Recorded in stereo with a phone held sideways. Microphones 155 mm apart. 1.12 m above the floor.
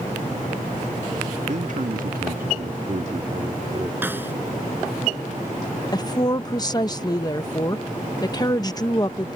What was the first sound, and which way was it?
A man speaking, 50° right (ahead or behind).